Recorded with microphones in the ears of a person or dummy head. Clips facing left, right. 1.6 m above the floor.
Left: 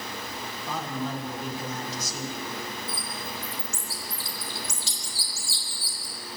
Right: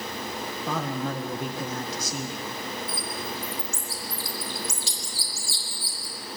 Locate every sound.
0.7 s a man speaking: 55° right (ahead or behind), 1.8 m
2.9 s a bird: 75° right (ahead or behind), 4.5 m